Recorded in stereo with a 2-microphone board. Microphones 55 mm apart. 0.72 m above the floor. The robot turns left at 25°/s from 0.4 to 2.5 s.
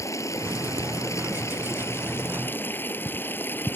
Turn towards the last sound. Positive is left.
turn(degrees=40)